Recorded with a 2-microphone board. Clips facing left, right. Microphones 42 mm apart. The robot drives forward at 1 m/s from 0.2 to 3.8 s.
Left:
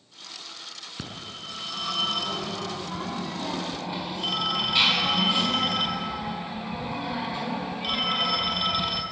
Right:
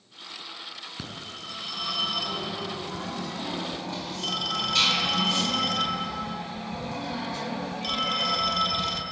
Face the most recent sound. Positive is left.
turn(degrees=15)  # may be behind; listen again after turning